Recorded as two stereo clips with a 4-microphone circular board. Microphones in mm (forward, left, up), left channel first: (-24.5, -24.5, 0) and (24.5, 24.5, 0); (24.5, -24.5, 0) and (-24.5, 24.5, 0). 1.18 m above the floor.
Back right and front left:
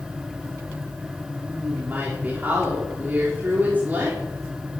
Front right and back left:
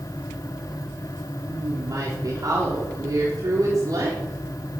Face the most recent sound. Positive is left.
turn(degrees=110)